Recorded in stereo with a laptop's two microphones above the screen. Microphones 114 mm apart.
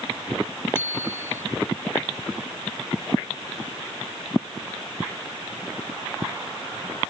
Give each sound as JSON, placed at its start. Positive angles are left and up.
{"t": 0.8, "sound": "a bicycle bell", "side_deg": 20}